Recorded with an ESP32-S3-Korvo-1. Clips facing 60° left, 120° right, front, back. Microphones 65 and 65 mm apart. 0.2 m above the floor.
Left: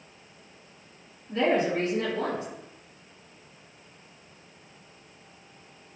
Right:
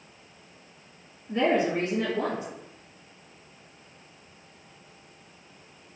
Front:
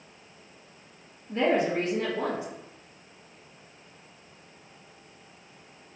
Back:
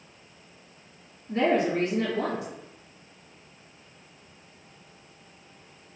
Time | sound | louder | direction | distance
1.3 | a woman speaking | even, back 1 dB | 175° right | 2.0 m